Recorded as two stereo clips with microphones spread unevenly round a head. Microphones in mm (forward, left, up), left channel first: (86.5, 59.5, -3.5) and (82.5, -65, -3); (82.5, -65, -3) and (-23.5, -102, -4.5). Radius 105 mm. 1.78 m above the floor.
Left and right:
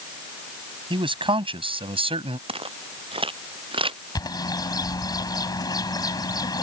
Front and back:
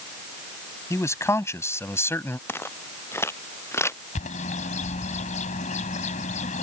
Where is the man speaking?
45° right; by 2.4 s 50° right.